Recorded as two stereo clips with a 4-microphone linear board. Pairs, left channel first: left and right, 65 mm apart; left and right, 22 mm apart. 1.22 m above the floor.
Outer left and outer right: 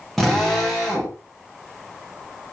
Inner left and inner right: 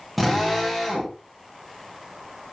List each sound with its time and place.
0.2 s a drill: 5° left (ahead or behind), 8 m